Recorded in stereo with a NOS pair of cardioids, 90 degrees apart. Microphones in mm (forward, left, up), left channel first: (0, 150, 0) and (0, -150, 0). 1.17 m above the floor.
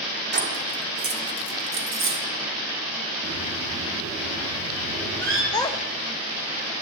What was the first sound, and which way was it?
Keys jangling, 35° right.